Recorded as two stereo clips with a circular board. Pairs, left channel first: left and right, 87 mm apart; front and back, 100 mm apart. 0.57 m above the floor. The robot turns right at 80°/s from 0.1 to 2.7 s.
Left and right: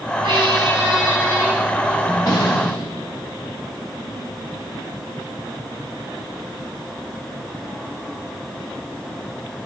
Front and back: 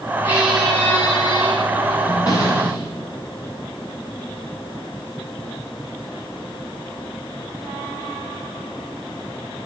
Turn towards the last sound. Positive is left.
turn(degrees=85)